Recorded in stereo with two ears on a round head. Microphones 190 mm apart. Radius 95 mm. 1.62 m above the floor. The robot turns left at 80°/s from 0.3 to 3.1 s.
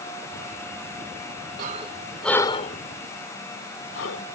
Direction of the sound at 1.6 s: 45° right (ahead or behind).